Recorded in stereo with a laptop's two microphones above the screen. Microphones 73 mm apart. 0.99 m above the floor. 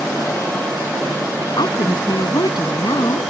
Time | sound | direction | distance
1.6 | a woman speaking | 80° left | ?